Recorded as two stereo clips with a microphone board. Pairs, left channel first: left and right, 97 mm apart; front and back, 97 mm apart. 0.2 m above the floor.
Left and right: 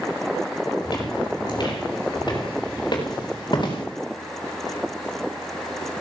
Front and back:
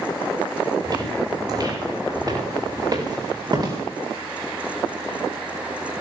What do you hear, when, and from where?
0.8 s footsteps: 135° left, 7.5 m